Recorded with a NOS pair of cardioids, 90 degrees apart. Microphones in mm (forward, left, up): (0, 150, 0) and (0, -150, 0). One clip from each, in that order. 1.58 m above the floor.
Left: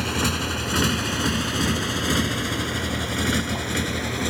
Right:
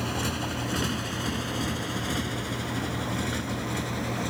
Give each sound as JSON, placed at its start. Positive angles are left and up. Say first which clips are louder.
{"t": 0.0, "sound": "a motorcycle", "louder": "left 6 dB", "azimuth_deg": 55}